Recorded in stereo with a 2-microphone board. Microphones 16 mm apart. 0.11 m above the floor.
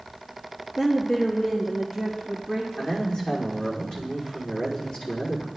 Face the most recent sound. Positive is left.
turn(degrees=60)  # may be behind; listen again after turning